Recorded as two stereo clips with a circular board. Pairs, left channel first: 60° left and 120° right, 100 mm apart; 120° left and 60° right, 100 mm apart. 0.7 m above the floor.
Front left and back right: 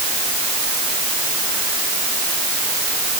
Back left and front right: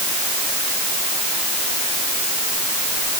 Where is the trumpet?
I don't hear a trumpet.